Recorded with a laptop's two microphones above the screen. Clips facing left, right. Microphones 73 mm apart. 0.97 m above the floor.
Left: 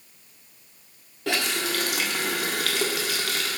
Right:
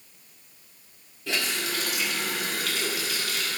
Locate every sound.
1.3 s a running tap: 75° left (ahead or behind), 1.6 m